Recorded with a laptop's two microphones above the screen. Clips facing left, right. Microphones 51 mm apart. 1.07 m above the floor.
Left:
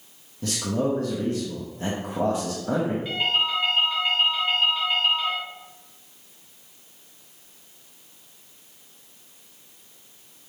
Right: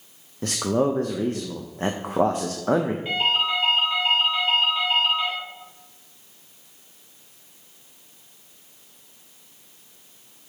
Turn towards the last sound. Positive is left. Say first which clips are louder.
# right 2 dB
turn(degrees=-30)  # may be behind; listen again after turning